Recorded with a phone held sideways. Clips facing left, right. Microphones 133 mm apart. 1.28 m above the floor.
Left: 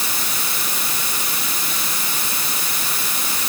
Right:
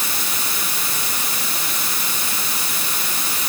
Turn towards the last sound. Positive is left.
No sound to turn to.